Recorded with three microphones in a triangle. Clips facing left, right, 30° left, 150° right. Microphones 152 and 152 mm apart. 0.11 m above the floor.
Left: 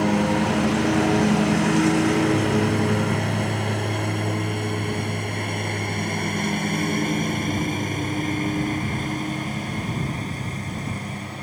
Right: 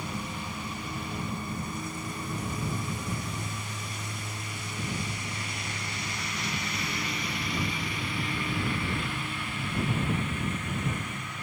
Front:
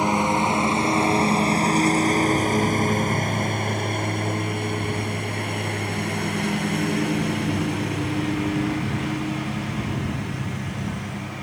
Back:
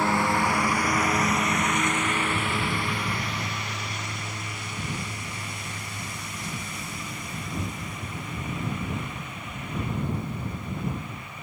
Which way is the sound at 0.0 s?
100° left.